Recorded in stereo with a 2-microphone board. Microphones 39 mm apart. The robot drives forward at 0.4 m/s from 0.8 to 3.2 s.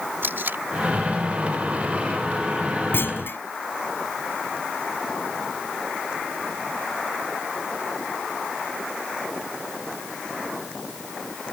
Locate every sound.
0.2 s tape being pulled: 65° right (ahead or behind)
2.9 s a clunk: 70° left (ahead or behind)